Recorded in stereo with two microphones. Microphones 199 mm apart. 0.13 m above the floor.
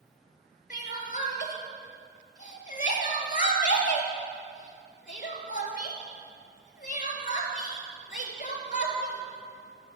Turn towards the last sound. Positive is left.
turn(degrees=40)  # may be behind; listen again after turning